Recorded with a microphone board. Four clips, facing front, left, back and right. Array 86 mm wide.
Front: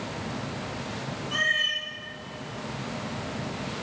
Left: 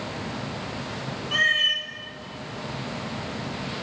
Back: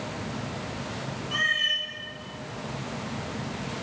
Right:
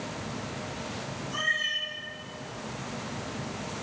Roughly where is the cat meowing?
Left.